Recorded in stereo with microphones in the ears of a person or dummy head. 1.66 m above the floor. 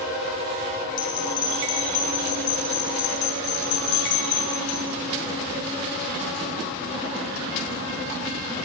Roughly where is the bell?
Left.